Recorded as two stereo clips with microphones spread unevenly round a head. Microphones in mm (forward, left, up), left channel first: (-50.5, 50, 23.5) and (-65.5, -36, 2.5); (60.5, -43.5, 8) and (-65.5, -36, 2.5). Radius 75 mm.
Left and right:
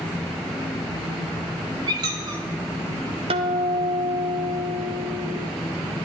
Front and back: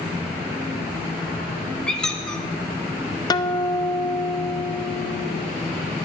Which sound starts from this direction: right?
A squeak, at 1.9 s.